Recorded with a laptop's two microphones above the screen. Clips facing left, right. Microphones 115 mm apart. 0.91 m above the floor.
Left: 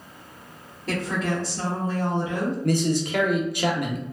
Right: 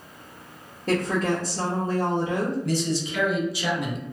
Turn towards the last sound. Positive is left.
turn(degrees=55)  # may be behind; listen again after turning